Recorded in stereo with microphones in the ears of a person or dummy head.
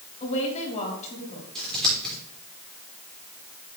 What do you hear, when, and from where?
0.2 s a woman speaking: 40° left (ahead or behind), 3 m
1.6 s scissors: 5° left (ahead or behind), 5.5 m